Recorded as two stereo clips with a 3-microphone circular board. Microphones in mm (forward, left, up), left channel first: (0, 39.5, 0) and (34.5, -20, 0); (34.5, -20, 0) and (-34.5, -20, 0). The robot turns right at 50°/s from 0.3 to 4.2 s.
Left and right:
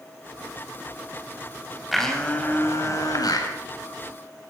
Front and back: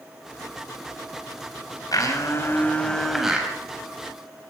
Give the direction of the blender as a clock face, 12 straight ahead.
11 o'clock.